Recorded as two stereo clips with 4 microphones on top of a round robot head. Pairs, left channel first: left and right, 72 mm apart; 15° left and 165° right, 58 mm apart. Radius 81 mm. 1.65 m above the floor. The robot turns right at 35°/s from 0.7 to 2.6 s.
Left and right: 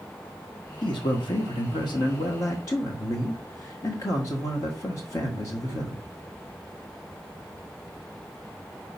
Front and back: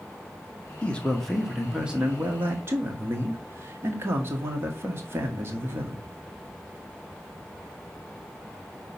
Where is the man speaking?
80° left, 1.4 m; by 6.0 s 145° left, 1.4 m.